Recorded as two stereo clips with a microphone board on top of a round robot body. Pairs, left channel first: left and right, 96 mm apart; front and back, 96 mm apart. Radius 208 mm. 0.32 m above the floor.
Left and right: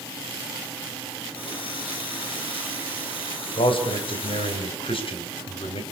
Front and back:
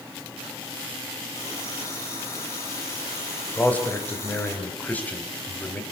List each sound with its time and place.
1.4 s a running tap: 60° left, 9.5 m
3.6 s a man speaking: 75° left, 4 m